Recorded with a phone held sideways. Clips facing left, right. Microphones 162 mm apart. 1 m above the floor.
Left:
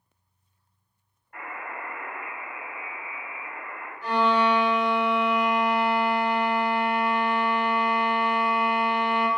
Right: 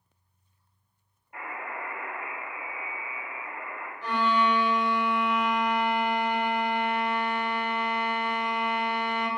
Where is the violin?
15° left (ahead or behind), 1.3 m.